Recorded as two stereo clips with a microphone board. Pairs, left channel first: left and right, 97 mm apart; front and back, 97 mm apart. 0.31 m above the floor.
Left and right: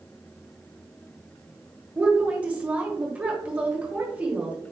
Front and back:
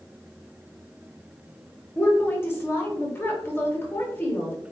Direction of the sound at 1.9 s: 30° right.